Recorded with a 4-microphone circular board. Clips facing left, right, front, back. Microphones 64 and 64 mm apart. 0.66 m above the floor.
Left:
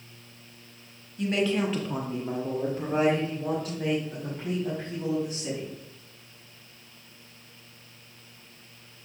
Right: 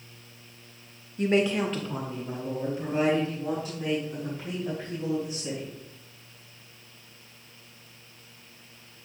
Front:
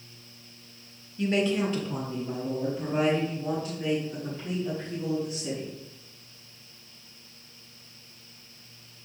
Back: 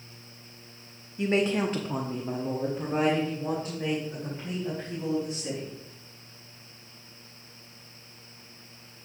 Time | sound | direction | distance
1.2 | a woman speaking | 120° right | 0.7 m